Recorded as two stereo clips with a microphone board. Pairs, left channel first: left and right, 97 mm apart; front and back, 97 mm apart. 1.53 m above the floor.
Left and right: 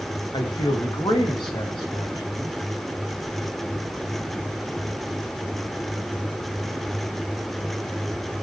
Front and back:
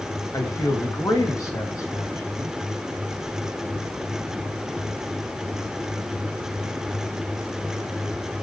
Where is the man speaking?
55° left, 2 m.